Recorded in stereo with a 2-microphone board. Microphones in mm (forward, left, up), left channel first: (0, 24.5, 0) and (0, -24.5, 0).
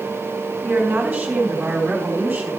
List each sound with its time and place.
0.6 s a woman speaking: 25° right (ahead or behind), 2.5 m